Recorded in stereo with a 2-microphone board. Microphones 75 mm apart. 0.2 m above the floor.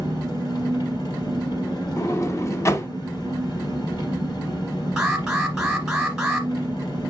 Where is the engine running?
65° left (ahead or behind), 3 m.